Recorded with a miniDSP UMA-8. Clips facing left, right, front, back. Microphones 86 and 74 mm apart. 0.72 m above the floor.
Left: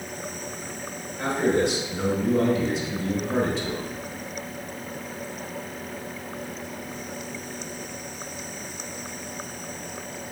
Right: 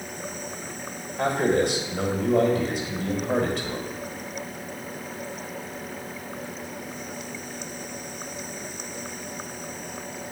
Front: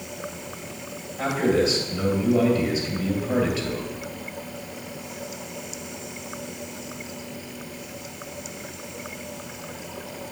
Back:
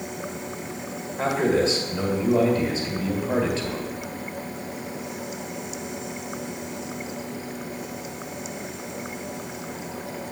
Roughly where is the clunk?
No clunk in this recording.